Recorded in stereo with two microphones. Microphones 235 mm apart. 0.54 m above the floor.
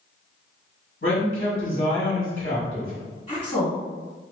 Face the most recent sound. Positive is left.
turn(degrees=35)  # may be behind; listen again after turning